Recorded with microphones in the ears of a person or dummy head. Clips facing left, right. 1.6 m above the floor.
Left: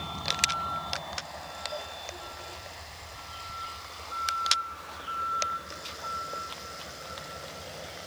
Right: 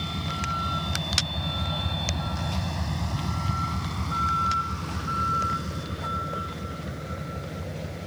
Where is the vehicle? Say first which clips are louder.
Right 5 dB; 25° right (ahead or behind); by 8.1 s 40° right (ahead or behind).